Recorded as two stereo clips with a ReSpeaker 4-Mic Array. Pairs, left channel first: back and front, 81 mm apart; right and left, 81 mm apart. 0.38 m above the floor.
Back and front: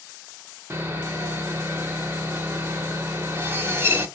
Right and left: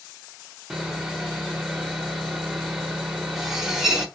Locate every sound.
0.7 s sawing: 10° left, 0.7 m